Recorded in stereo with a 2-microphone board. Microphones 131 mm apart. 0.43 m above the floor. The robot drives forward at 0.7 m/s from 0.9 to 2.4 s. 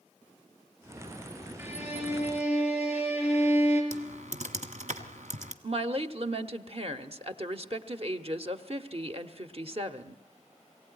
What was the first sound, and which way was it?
A violin, 15° right (ahead or behind).